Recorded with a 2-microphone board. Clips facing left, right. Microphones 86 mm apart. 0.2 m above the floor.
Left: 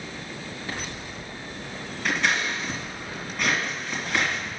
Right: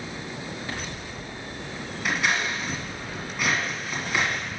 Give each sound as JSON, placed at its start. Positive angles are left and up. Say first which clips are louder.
{"t": 2.0, "sound": "scissors", "louder": "even", "side_deg": -5, "distance_m": 2.0}